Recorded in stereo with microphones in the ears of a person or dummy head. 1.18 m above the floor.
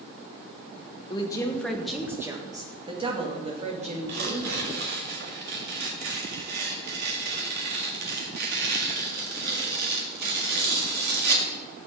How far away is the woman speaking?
About 1.2 m.